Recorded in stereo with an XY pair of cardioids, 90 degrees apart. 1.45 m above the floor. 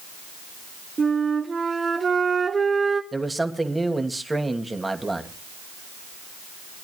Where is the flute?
40° right, 2 m.